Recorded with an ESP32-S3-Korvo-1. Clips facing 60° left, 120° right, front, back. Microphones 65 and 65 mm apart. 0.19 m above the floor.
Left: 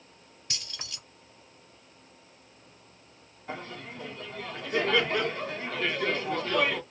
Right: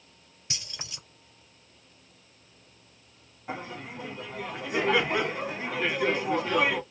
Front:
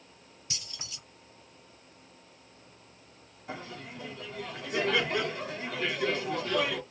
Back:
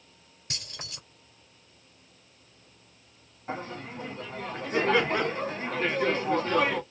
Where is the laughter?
175° left, 1.5 m.